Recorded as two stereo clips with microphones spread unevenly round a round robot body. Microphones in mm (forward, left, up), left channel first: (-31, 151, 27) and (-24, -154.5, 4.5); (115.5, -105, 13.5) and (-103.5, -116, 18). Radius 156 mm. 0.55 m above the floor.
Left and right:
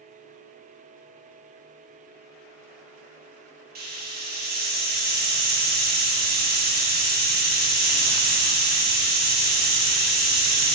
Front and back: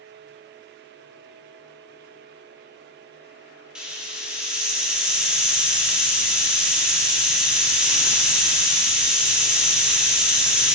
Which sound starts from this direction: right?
A hiss, at 3.8 s.